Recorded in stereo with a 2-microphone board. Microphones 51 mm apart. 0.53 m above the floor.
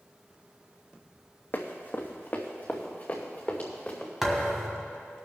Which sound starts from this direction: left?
Running footsteps, at 1.5 s.